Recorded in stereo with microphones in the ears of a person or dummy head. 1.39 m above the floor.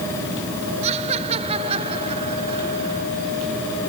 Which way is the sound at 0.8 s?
35° right (ahead or behind).